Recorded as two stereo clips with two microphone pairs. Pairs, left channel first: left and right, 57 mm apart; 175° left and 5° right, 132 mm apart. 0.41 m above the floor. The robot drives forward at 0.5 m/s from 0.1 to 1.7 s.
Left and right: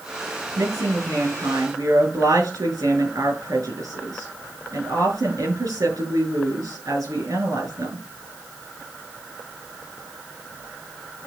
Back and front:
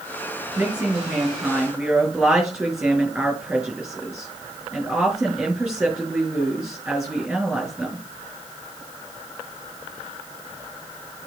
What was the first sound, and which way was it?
A woman speaking, 85° right.